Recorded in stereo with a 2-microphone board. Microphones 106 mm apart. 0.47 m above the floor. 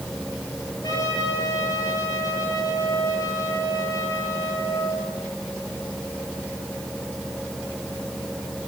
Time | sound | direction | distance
0.8 | a trumpet | 35° left (ahead or behind) | 7.5 m